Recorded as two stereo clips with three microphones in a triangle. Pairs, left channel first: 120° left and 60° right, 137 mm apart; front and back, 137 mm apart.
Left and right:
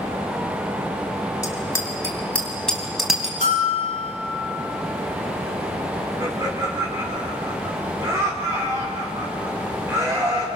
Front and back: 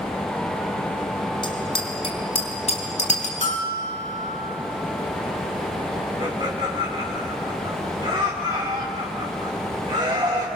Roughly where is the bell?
Ahead right.